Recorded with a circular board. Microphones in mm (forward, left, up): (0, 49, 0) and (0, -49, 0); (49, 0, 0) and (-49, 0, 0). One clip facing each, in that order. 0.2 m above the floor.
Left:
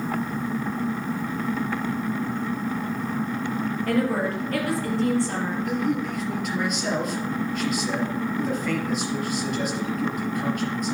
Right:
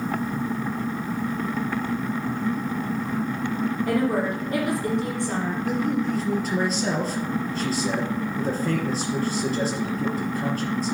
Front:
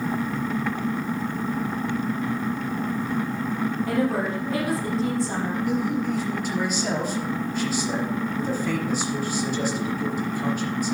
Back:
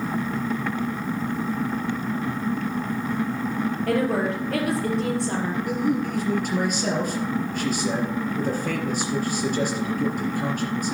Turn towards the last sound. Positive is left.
turn(degrees=-145)